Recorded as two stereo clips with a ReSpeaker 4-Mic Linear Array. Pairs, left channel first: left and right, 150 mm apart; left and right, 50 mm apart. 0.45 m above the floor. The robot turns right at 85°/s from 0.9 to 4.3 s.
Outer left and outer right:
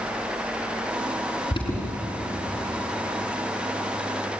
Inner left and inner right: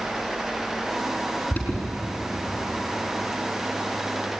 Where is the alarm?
40° left (ahead or behind), 5 m; by 1.9 s 10° left (ahead or behind), 5 m.